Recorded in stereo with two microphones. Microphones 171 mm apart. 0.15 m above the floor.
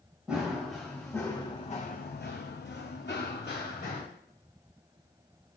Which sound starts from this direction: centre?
Running footsteps, at 0.3 s.